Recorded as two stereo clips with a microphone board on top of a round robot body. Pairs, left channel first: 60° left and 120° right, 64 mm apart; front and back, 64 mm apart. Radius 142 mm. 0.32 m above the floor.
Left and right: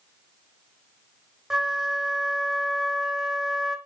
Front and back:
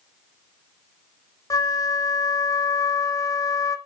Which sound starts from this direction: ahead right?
A flute, at 1.5 s.